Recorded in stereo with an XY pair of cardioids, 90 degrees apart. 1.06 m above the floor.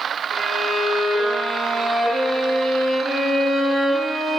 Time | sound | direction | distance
0.3 | a violin | 15° right | 1.5 m